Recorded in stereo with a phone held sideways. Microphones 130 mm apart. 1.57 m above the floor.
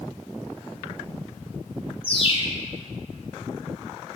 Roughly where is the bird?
Left.